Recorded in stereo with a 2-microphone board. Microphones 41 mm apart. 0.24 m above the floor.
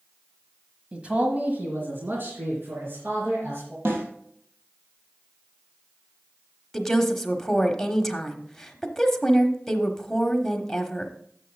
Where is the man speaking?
25° right (ahead or behind), 1.3 m; by 3.8 s 75° right (ahead or behind), 4.5 m.